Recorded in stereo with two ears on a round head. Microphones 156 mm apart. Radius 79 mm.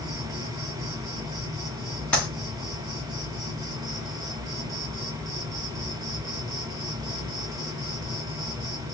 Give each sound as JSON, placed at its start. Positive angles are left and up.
{"t": 0.0, "sound": "an insect", "side_deg": -20, "distance_m": 1.2}
{"t": 2.1, "sound": "a clap", "side_deg": 5, "distance_m": 1.2}